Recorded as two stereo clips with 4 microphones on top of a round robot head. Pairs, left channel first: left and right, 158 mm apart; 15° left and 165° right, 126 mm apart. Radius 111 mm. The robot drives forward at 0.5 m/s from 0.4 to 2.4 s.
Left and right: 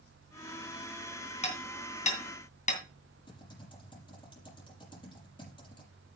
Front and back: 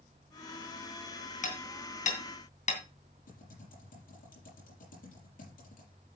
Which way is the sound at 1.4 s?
40° left.